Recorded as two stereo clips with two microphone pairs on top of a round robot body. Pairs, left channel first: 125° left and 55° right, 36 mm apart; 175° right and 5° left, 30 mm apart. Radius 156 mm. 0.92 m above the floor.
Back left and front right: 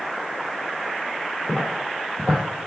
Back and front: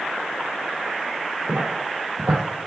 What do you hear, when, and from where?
1.5 s footsteps: 30° left, 1.4 m; by 2.7 s 135° right, 0.9 m